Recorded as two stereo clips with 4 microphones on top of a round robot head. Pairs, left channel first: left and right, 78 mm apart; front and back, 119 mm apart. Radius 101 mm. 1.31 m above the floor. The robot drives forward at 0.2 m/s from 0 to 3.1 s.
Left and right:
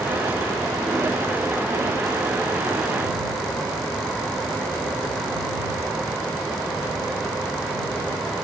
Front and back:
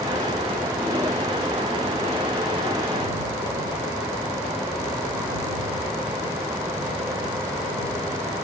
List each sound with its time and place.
Only background noise.